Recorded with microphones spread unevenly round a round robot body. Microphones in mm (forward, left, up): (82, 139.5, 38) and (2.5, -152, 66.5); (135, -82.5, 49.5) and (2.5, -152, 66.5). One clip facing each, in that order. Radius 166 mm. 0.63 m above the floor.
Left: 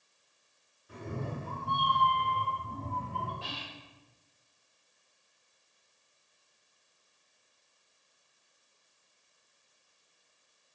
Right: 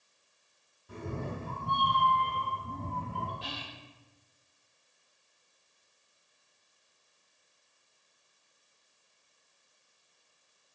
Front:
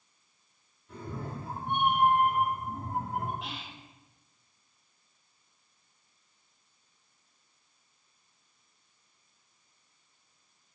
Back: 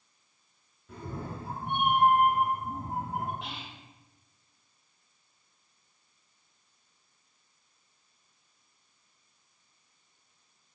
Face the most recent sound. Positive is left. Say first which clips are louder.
# right 1 dB, even
turn(degrees=-60)